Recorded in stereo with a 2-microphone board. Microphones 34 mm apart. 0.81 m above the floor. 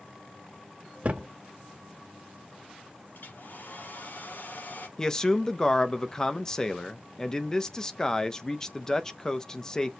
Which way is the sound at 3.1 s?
65° left (ahead or behind).